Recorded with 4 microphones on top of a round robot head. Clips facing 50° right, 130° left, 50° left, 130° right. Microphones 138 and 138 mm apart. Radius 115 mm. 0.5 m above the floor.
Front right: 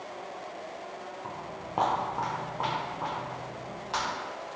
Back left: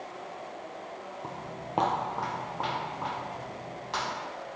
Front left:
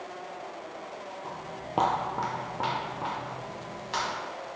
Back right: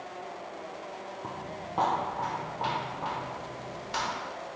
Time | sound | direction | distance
1.2 | footsteps | 175° right | 0.8 m